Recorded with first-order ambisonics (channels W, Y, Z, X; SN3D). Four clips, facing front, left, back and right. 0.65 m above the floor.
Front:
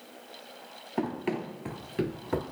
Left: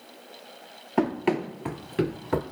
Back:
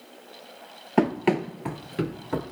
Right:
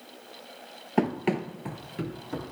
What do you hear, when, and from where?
1.0 s running footsteps: 170° right, 0.7 m; by 2.4 s 80° left, 0.8 m